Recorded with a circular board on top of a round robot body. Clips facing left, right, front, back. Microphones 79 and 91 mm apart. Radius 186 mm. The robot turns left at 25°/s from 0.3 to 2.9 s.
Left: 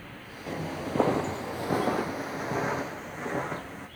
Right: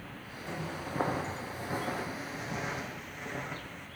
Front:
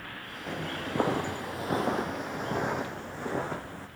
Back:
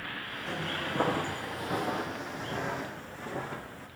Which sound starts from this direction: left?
Footsteps, at 0.5 s.